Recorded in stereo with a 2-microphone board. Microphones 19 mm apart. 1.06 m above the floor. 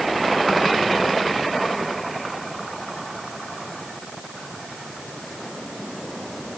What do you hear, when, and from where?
Only background noise.